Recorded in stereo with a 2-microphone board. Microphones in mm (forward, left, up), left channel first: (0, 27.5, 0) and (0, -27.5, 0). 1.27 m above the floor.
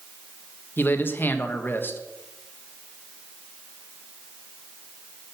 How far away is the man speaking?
About 1.3 m.